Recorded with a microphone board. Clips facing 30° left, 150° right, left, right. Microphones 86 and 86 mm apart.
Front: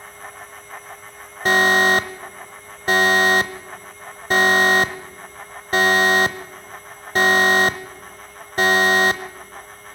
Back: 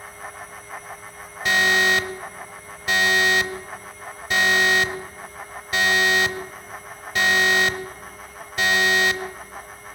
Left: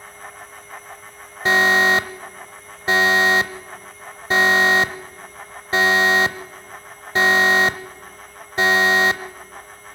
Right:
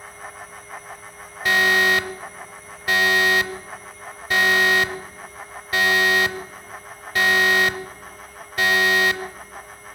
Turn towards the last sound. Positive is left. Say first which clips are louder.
# front 4 dB, left 2 dB
turn(degrees=45)